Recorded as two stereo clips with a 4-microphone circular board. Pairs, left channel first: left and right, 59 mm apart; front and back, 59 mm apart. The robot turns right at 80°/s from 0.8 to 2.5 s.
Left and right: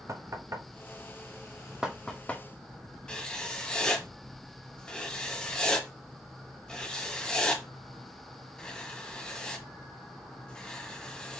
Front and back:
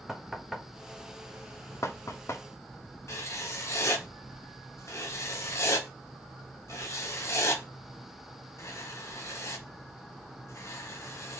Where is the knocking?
95° right, 0.5 m; by 2.4 s 35° left, 0.5 m.